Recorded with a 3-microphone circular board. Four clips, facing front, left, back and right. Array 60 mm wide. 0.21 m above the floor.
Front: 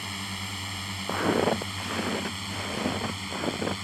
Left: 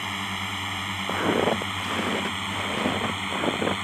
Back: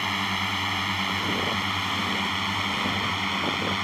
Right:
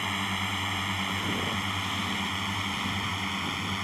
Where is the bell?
No bell in this recording.